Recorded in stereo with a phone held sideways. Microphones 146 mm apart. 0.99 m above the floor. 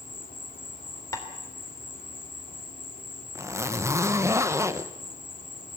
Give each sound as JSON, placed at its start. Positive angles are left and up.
{"t": 0.0, "sound": "an insect", "side_deg": 65, "distance_m": 2.5}
{"t": 1.1, "sound": "tapping", "side_deg": 25, "distance_m": 3.0}
{"t": 3.4, "sound": "a zipper", "side_deg": -20, "distance_m": 0.9}